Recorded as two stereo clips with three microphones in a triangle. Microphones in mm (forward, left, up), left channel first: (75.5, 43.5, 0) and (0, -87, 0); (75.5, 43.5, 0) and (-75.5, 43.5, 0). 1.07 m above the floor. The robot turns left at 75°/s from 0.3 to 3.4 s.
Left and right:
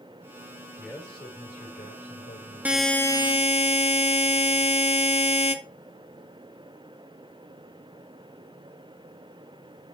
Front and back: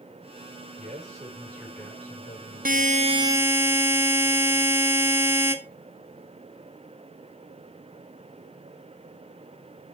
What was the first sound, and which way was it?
A man speaking, 160° left.